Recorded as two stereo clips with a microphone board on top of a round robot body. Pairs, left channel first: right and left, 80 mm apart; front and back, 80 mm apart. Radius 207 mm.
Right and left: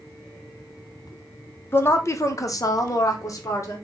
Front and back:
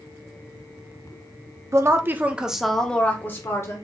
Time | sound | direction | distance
1.7 | a woman speaking | 140° right | 0.9 m